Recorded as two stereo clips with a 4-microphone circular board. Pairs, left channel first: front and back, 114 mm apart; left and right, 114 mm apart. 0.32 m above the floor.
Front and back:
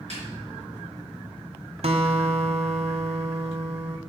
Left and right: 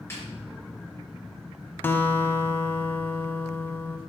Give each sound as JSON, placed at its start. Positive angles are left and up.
{"t": 0.1, "sound": "a snare drum", "azimuth_deg": 160, "distance_m": 3.5}
{"t": 1.8, "sound": "a guitar", "azimuth_deg": 160, "distance_m": 0.8}